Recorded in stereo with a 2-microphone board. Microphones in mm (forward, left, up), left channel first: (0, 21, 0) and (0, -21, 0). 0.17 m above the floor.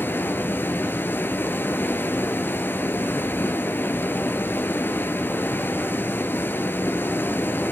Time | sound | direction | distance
0.0 | running water | 65° left (ahead or behind) | 0.9 m